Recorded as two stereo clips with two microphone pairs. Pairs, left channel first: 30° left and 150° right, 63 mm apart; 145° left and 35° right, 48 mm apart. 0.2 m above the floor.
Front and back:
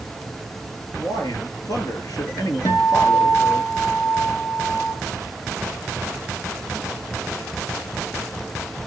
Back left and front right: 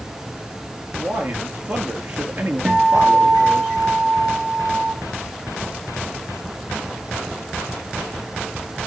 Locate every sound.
1.0 s a man speaking: 5° left, 4 m
2.6 s a guitar: 40° left, 6 m